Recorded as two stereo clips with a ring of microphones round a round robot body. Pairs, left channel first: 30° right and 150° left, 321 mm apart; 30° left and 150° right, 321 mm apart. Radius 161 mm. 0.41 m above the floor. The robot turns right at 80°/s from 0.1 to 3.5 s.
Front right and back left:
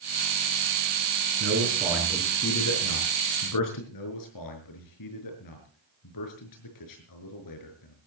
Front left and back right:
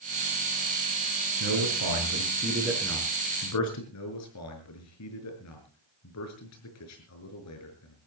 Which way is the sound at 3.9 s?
10° right.